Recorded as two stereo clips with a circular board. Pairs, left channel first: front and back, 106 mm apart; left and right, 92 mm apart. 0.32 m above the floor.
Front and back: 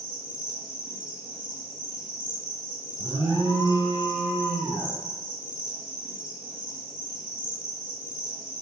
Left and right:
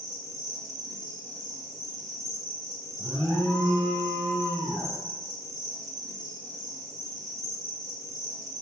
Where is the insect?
135° right, 1.4 m.